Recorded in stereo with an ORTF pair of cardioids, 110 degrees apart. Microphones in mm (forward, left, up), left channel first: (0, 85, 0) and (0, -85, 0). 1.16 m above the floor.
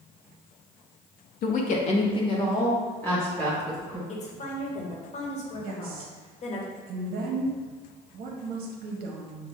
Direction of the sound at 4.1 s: 45° left.